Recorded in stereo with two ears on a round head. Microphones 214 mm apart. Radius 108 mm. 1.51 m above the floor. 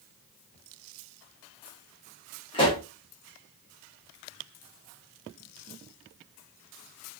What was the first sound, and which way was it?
A pop, 20° left (ahead or behind).